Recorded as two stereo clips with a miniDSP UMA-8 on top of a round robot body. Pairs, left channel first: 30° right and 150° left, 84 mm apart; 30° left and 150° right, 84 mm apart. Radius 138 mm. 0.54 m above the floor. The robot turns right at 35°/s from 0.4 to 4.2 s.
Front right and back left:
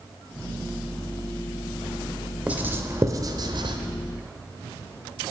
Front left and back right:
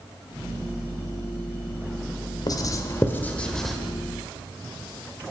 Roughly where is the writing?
Left.